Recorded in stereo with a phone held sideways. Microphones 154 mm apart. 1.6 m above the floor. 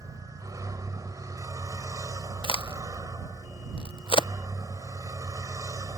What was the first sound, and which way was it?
A vehicle, 20° right (ahead or behind).